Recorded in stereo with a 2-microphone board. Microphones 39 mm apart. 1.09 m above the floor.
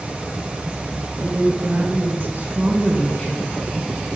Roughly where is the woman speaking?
Right.